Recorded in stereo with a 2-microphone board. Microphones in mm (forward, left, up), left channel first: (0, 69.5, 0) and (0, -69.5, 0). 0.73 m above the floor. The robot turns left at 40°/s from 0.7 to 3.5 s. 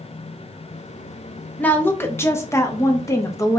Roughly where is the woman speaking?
Centre.